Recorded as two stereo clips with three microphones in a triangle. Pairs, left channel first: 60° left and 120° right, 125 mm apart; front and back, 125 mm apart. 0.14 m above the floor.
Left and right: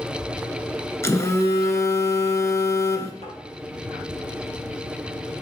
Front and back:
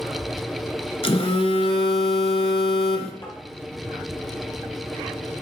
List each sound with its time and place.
1.0 s a phone buzzing: straight ahead, 0.8 m
3.2 s tapping: 40° left, 2.5 m